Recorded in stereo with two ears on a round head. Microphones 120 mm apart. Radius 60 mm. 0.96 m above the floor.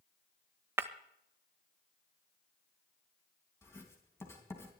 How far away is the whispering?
No whispering in this recording.